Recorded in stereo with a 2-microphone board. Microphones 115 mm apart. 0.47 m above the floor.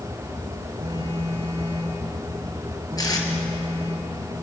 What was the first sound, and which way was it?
A phone buzzing, 60° right (ahead or behind).